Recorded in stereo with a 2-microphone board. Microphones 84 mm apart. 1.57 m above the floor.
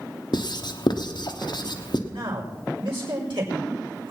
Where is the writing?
65° left (ahead or behind), 1.0 m.